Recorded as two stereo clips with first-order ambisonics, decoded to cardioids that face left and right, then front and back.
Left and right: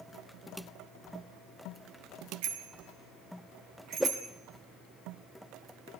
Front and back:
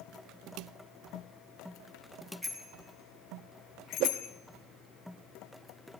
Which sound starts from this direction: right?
A bicycle bell, at 2.4 s.